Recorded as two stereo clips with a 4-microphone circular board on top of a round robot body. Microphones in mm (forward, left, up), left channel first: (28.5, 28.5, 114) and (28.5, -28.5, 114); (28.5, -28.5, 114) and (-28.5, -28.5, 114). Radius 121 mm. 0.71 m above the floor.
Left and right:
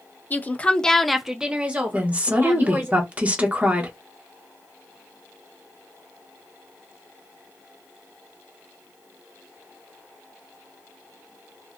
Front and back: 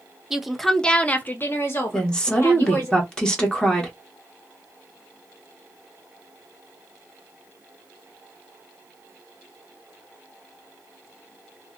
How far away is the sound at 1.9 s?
About 1.1 m.